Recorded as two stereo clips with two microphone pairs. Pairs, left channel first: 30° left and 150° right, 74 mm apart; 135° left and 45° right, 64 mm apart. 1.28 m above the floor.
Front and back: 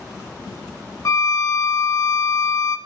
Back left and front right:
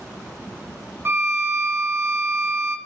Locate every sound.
1.1 s a violin: straight ahead, 1.0 m